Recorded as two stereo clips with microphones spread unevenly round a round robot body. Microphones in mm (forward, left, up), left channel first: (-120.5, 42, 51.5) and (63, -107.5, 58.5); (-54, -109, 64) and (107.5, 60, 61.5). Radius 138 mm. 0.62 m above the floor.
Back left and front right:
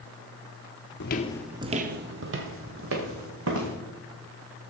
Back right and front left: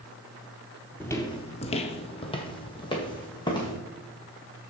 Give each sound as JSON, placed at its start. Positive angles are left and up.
{"t": 1.0, "sound": "footsteps", "azimuth_deg": 145, "distance_m": 0.7}